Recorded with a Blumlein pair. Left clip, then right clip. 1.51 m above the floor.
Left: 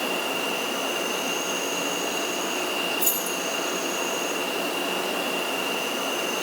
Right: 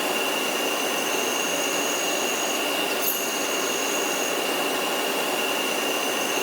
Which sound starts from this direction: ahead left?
Keys jangling, at 3.0 s.